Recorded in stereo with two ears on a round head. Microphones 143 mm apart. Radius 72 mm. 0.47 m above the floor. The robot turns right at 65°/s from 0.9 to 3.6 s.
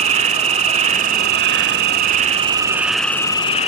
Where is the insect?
135° right, 0.9 m; by 3.7 s 40° left, 0.9 m.